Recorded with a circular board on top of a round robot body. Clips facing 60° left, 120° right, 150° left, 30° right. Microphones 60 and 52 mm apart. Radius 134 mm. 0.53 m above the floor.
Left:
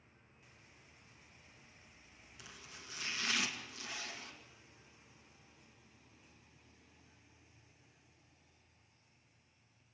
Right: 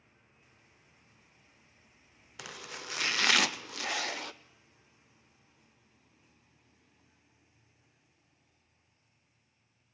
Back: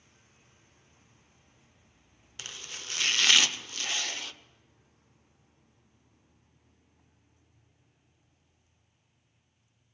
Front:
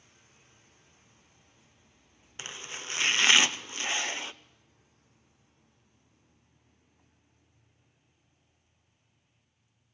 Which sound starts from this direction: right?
Chopping, at 2.4 s.